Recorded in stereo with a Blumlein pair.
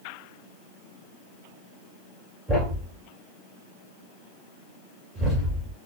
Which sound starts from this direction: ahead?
A thud, at 2.5 s.